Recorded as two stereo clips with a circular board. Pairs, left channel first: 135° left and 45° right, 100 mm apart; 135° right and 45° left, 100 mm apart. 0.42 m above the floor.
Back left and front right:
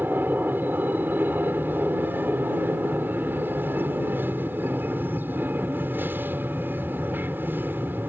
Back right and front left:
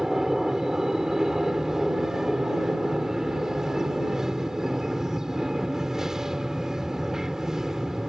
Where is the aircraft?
30° right.